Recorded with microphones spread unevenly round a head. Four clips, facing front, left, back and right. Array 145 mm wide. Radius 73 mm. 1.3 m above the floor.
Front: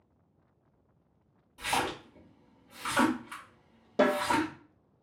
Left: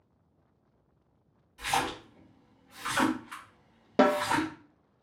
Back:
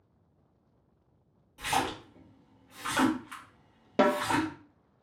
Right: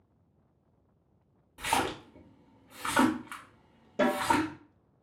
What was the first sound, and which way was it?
A splash, 90° right.